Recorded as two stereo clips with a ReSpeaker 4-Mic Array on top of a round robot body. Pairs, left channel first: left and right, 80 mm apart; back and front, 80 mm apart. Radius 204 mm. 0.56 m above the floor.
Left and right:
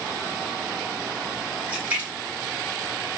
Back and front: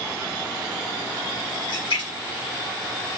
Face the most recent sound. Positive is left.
turn(degrees=-165)